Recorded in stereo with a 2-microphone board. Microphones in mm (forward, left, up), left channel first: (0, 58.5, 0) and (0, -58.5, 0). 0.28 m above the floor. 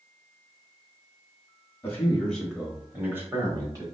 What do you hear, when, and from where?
1.8 s a man speaking: 20° left (ahead or behind), 1.0 m; by 3.8 s 35° right (ahead or behind), 1.2 m